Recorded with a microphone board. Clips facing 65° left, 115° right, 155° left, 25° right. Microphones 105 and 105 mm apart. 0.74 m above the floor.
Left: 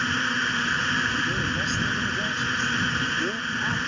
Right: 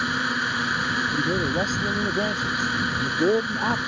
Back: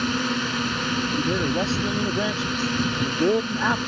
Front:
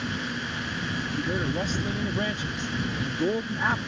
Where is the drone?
170° left.